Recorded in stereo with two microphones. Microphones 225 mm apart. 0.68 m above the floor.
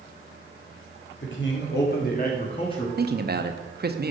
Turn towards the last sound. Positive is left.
turn(degrees=-45)  # may be behind; listen again after turning